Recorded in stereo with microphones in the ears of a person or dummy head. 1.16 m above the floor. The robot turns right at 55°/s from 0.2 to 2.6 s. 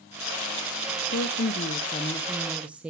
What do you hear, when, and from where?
1.1 s a woman speaking: 105° left, 0.6 m; by 2.9 s 175° right, 0.6 m